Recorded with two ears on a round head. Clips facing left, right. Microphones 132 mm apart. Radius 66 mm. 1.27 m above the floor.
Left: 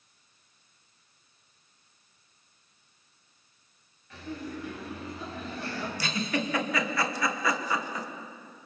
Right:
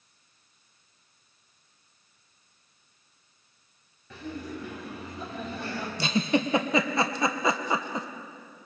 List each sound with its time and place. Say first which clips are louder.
4.1 s laughter: right 1 dB; 75° right (ahead or behind), 8 m
6.0 s a giggle: right 7 dB; 20° right (ahead or behind), 1.1 m